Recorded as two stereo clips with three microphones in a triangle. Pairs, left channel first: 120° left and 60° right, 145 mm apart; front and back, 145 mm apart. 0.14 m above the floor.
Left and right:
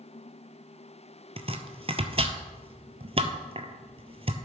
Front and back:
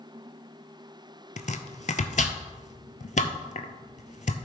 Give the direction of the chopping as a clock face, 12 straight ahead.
1 o'clock.